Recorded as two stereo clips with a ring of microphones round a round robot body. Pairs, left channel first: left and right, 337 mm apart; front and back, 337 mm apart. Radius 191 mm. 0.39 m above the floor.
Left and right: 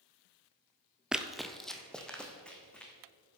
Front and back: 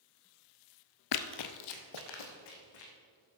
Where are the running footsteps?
Straight ahead, 0.5 m; by 2.9 s 5° left, 2.5 m.